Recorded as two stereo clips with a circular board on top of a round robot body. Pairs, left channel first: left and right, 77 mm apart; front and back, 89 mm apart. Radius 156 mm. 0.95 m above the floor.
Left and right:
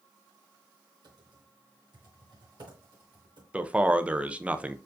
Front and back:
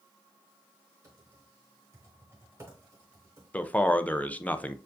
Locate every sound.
1.0 s typing on a keyboard: 115° right, 1.2 m
3.5 s a man speaking: 45° right, 0.6 m